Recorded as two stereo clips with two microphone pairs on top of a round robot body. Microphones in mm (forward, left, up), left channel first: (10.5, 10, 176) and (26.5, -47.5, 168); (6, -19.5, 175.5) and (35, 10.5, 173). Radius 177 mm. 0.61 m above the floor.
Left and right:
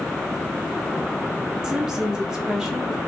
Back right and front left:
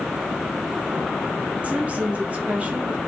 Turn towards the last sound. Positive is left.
turn(degrees=-5)